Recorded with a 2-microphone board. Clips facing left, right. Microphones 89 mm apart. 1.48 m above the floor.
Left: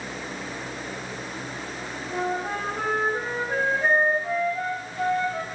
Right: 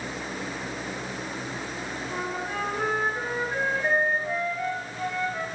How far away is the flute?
About 2.0 m.